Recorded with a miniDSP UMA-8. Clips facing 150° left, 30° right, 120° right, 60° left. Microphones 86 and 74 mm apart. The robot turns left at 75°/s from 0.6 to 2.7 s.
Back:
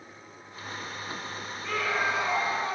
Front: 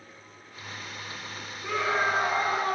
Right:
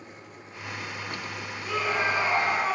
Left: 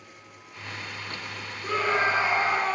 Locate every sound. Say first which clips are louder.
1.6 s a scream: front 2 dB, left 3 dB; 45° left, 1.8 m; by 2.8 s 35° right, 1.8 m